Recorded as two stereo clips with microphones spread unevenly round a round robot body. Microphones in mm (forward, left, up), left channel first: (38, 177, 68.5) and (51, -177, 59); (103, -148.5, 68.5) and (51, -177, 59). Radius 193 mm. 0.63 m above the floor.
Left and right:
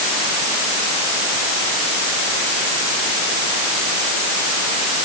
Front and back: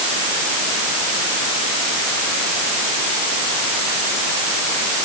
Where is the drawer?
I don't hear a drawer.